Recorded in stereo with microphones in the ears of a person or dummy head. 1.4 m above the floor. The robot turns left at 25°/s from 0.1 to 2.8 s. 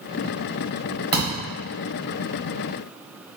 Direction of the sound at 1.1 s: 25° right (ahead or behind).